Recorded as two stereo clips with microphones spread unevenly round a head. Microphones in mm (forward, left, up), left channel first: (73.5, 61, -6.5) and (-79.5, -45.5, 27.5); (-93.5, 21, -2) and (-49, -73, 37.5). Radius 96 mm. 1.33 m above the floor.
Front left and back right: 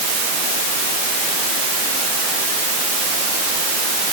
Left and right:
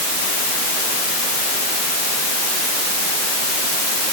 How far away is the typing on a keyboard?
I don't hear typing on a keyboard.